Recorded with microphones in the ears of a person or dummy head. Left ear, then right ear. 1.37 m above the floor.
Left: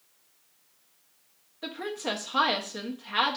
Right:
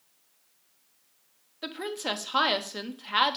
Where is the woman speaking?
20° right (ahead or behind), 0.9 m.